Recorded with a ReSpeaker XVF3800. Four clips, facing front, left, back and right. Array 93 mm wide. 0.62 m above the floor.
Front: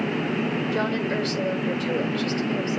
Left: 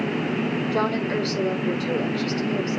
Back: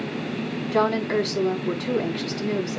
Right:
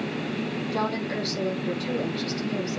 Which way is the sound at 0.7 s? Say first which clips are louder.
Left 3 dB, back 8 dB; 175° left.